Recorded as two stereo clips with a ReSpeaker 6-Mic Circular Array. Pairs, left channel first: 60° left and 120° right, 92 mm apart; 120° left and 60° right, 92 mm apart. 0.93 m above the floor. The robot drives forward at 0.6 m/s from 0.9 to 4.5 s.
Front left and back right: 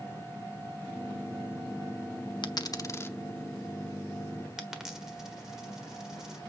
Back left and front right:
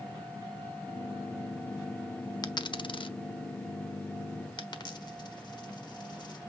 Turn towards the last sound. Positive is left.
turn(degrees=155)